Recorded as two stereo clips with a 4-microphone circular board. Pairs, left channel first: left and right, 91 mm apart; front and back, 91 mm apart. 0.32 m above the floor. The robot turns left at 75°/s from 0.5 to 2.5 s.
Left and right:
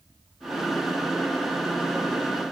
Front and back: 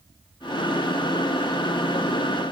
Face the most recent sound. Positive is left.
No sound to turn to.